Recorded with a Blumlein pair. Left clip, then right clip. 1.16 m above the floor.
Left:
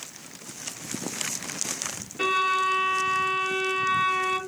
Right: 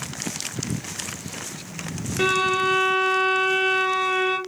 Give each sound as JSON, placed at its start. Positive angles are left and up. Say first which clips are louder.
{"t": 2.2, "sound": "a violin", "louder": "right 2 dB", "azimuth_deg": -60, "distance_m": 0.9}